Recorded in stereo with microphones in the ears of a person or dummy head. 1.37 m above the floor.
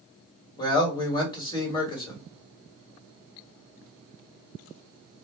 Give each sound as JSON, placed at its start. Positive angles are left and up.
{"t": 0.6, "sound": "a man speaking", "side_deg": 25, "distance_m": 1.5}